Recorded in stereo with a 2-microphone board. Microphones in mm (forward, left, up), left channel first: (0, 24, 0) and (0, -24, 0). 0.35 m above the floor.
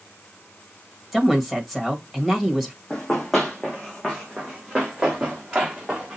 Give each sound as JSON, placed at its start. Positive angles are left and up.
{"t": 1.1, "sound": "a woman speaking", "side_deg": -5, "distance_m": 1.6}
{"t": 2.9, "sound": "running footsteps", "side_deg": 10, "distance_m": 1.3}